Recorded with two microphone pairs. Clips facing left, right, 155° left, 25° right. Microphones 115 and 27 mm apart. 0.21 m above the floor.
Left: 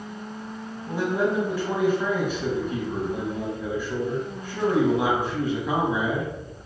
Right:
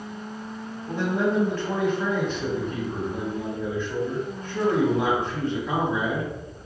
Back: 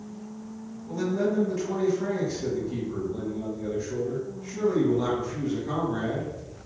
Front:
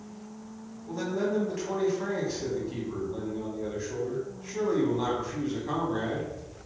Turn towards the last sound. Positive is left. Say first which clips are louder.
# even, back 3 dB
turn(degrees=25)